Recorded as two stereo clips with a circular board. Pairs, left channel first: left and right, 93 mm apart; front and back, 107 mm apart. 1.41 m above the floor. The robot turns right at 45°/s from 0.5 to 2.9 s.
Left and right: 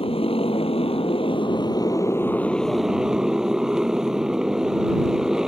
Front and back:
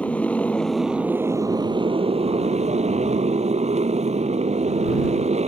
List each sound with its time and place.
0.0 s a motorcycle: 80° left; by 5.5 s 175° right